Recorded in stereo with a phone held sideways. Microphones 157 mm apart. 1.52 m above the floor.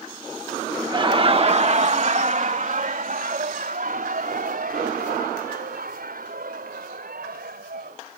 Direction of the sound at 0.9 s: 30° right (ahead or behind).